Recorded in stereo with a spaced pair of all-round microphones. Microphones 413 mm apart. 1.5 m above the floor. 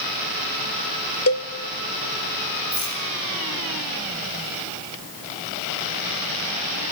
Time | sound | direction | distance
1.3 | a cowbell | 35° left (ahead or behind) | 0.8 m
2.7 | a rattle | 80° left | 7 m